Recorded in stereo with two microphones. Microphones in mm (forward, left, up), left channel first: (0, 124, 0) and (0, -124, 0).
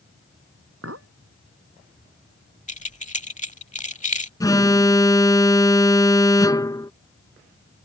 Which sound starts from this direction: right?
A clink, at 0.8 s.